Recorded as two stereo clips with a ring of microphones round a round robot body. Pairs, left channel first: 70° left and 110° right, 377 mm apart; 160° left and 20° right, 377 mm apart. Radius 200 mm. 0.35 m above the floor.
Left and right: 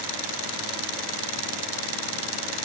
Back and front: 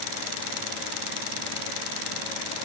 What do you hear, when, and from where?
Only background noise.